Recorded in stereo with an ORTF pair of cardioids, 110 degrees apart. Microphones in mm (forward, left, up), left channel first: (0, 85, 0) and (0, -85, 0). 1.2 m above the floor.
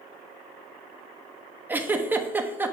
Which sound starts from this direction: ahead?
A giggle, at 1.7 s.